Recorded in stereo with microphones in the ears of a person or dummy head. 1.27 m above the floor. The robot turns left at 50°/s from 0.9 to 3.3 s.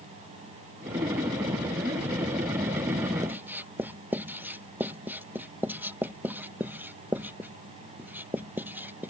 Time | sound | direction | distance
3.2 | writing | 15° right (ahead or behind) | ?